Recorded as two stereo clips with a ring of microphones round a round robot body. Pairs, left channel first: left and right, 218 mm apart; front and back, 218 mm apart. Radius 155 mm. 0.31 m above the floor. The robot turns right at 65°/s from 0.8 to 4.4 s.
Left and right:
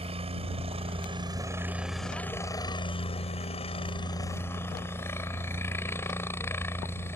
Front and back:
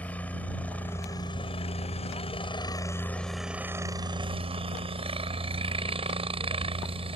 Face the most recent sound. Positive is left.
turn(degrees=160)